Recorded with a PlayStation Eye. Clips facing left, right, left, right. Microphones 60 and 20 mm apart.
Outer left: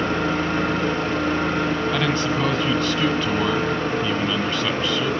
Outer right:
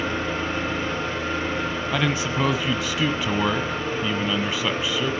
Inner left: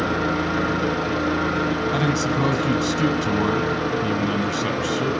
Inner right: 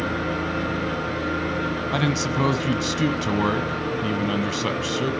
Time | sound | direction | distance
0.0 | an engine running | 60° left (ahead or behind) | 7.5 m
1.9 | a man speaking | 5° right (ahead or behind) | 1.0 m